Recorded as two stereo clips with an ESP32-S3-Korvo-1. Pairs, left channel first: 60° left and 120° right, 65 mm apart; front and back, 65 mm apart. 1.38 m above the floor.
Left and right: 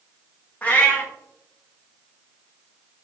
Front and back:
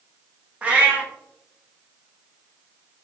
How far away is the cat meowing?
About 1.0 m.